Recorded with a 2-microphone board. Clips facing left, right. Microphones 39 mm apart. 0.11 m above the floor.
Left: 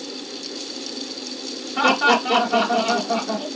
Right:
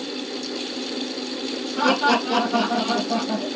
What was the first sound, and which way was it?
Laughter, 45° left (ahead or behind).